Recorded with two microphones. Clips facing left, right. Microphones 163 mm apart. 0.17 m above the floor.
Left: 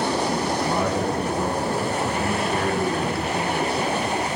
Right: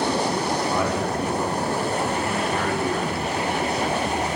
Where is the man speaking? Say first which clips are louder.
Left 1 dB; 30° left (ahead or behind), 1.8 m.